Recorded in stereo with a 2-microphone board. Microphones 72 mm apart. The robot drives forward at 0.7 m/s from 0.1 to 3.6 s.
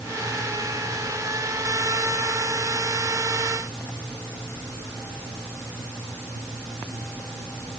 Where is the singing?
I don't hear singing.